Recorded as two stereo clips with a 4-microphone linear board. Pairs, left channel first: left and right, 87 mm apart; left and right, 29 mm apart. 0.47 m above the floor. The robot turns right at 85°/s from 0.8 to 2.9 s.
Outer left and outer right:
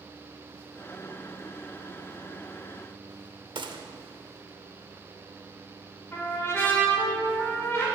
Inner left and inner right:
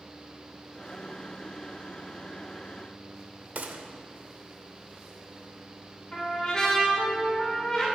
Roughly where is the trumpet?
Left.